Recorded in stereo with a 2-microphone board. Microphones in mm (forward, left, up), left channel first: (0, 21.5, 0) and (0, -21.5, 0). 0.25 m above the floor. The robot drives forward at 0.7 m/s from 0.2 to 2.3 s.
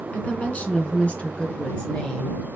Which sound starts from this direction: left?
A woman speaking, at 0.1 s.